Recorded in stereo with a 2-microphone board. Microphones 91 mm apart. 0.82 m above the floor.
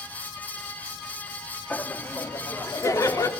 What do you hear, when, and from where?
1.7 s laughter: 15° left (ahead or behind), 1.8 m; by 3.3 s 35° left (ahead or behind), 2.5 m